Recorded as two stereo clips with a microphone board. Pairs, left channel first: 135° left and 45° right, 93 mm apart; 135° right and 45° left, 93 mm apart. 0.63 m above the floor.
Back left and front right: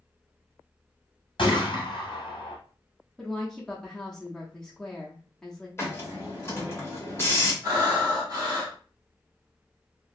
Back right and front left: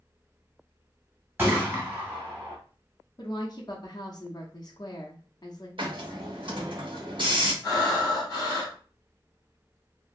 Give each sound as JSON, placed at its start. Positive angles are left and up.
{"t": 1.4, "sound": "a gunshot", "azimuth_deg": 110, "distance_m": 1.5}
{"t": 3.2, "sound": "a woman speaking", "azimuth_deg": -145, "distance_m": 0.7}
{"t": 5.8, "sound": "a hiss", "azimuth_deg": 75, "distance_m": 0.9}
{"t": 7.6, "sound": "breathing", "azimuth_deg": -95, "distance_m": 1.6}